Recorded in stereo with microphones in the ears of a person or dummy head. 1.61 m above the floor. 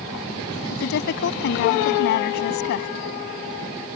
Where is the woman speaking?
55° left (ahead or behind).